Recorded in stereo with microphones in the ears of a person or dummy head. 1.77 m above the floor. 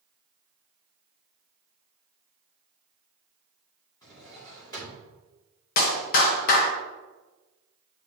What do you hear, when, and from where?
4.0 s a drawer: 20° left (ahead or behind), 2.5 m
5.8 s a clap: 55° left (ahead or behind), 0.9 m